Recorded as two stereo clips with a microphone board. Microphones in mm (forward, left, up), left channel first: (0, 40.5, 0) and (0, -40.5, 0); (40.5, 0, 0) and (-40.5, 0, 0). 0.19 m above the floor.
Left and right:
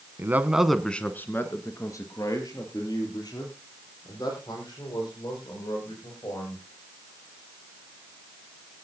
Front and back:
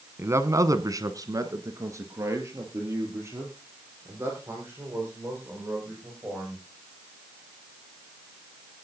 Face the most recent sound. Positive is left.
turn(degrees=120)